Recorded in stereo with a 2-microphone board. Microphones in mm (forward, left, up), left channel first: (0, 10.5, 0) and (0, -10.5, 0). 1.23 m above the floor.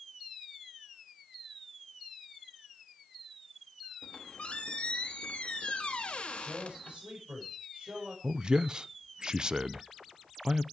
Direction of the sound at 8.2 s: 40° right (ahead or behind).